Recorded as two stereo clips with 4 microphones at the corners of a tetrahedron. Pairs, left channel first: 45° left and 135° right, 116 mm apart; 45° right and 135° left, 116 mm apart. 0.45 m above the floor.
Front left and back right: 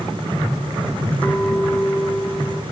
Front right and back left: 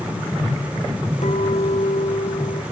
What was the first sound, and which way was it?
A clink, 30° right.